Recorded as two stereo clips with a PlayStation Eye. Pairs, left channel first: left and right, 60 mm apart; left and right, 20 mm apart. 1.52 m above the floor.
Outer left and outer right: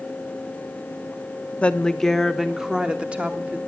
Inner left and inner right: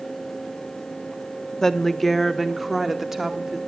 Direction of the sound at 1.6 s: 20° left (ahead or behind).